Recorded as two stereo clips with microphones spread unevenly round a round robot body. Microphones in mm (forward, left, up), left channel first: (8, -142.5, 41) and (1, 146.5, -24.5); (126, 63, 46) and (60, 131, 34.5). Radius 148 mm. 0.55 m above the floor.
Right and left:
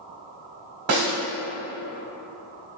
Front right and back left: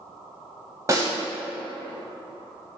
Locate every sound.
0.9 s a snare drum: 80° left, 1.2 m